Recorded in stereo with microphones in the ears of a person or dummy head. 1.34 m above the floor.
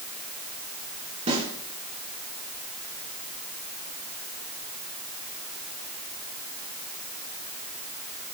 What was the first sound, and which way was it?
A snare drum, 40° right (ahead or behind).